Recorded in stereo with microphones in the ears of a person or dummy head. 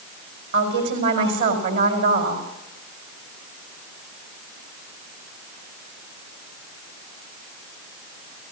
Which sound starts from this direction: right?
A woman speaking, at 0.5 s.